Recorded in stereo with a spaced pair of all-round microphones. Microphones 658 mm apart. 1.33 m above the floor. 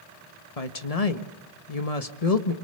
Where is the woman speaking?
65° left (ahead or behind), 1.6 m.